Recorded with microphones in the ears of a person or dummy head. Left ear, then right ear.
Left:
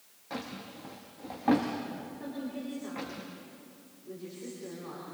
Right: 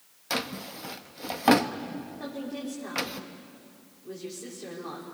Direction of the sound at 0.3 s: 50° right (ahead or behind).